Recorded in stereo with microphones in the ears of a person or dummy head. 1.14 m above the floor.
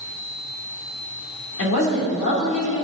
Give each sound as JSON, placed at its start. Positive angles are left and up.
{"t": 1.6, "sound": "a woman speaking", "side_deg": 70, "distance_m": 3.0}